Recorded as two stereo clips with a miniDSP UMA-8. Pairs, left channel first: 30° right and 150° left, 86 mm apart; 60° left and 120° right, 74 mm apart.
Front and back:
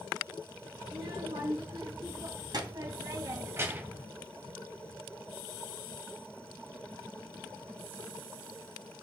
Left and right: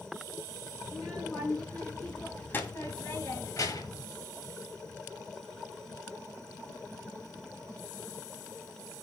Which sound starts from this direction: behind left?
A child speaking, at 0.8 s.